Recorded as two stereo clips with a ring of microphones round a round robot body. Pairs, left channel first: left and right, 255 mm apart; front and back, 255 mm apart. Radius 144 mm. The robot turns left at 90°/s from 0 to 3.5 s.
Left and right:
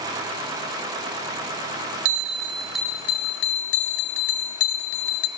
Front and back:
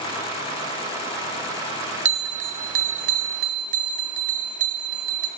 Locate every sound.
2.0 s a bell: 115° right, 0.7 m; by 5.3 s 115° left, 0.7 m